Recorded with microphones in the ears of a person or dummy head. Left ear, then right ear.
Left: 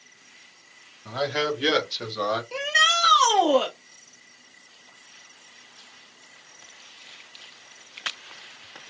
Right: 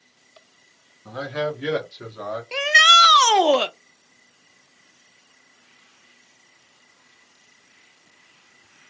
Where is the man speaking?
5° left (ahead or behind), 1.8 m; by 2.4 s 45° left (ahead or behind), 2 m.